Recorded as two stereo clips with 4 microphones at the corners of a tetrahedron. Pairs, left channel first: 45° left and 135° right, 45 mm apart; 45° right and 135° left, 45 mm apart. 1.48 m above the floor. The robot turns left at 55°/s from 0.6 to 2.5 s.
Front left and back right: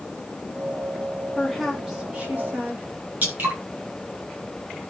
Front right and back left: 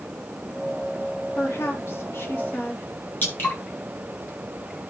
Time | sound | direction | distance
1.3 | a woman speaking | 25° right | 3 m
3.2 | dripping | 85° right | 7 m